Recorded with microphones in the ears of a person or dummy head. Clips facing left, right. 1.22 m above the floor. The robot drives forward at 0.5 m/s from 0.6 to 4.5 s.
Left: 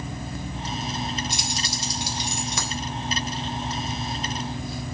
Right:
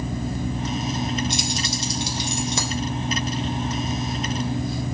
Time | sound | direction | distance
1.3 | keys jangling | 25° right (ahead or behind) | 4 m